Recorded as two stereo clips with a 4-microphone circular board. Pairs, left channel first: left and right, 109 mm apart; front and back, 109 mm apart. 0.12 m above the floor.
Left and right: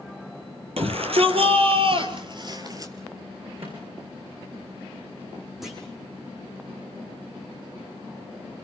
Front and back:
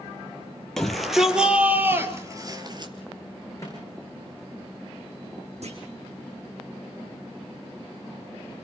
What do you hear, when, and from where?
0.8 s a shout: 85° right, 4 m; by 2.9 s 145° right, 3 m
3.6 s a microwave: 60° right, 9.5 m
5.6 s a clunk: straight behind, 4.5 m